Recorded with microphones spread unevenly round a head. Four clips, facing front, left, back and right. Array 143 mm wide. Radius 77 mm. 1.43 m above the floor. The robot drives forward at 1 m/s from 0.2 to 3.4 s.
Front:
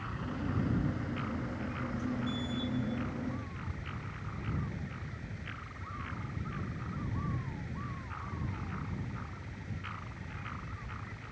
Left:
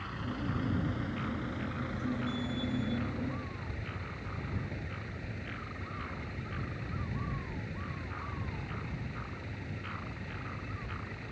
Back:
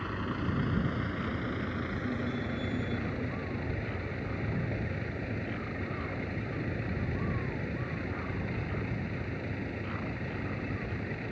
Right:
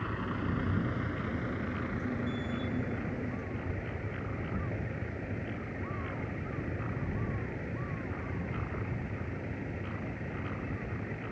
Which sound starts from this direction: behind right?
A vehicle, at 0.0 s.